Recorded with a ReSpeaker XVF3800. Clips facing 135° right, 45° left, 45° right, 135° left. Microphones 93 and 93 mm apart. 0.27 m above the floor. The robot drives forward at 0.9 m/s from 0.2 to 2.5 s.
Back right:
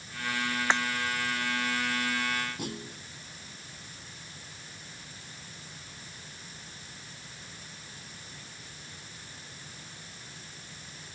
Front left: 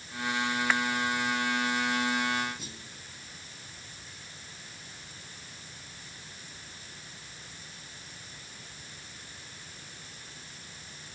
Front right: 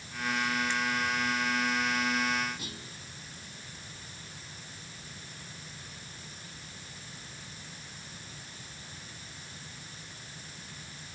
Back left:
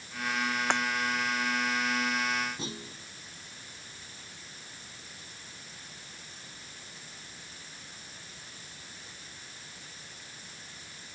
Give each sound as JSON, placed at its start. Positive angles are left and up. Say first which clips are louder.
{"t": 0.7, "sound": "breaking glass", "louder": "back right 2 dB, back left 3 dB", "azimuth_deg": 160}
{"t": 2.6, "sound": "a clunk", "louder": "back right 9 dB, back left 4 dB", "azimuth_deg": -160}